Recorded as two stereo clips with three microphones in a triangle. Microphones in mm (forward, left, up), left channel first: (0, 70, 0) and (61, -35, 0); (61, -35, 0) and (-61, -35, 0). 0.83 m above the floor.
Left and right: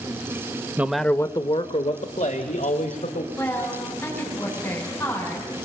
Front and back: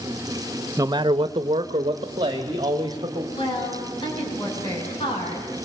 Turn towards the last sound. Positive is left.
turn(degrees=50)